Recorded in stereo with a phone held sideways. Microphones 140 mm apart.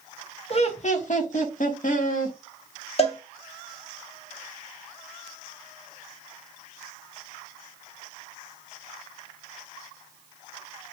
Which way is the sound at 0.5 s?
45° left (ahead or behind).